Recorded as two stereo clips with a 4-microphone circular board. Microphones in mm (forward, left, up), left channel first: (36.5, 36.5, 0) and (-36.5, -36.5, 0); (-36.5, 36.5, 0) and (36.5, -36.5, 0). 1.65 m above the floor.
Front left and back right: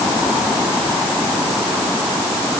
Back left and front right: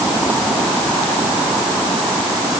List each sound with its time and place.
Only background noise.